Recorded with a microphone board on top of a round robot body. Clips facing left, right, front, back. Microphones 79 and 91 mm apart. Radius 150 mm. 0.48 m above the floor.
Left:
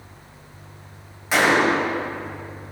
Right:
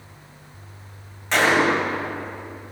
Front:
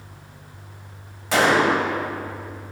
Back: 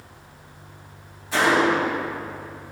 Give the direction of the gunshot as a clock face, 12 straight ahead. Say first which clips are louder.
Left 1 dB, front 1 dB; 12 o'clock.